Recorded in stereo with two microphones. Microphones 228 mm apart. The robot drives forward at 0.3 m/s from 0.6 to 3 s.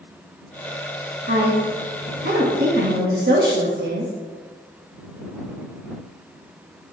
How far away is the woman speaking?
About 1.7 m.